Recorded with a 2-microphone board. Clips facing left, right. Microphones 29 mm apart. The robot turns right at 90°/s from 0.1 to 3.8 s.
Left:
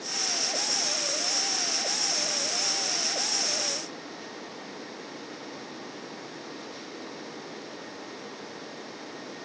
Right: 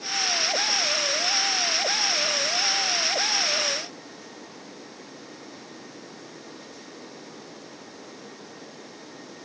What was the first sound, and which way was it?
Only background noise.